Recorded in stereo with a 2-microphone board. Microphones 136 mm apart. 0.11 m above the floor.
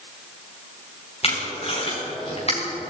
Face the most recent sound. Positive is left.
turn(degrees=50)  # may be behind; listen again after turning